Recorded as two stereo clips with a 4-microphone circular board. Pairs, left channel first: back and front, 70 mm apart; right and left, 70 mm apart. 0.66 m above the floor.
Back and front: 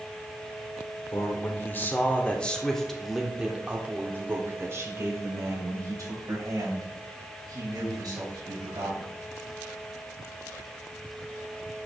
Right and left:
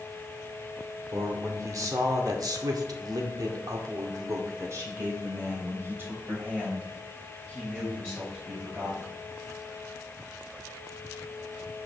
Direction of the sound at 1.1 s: 130° left.